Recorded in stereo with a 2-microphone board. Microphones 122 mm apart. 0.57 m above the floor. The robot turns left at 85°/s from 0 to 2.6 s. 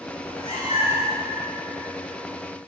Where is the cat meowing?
160° left, 2 m; by 1.2 s 75° left, 2 m.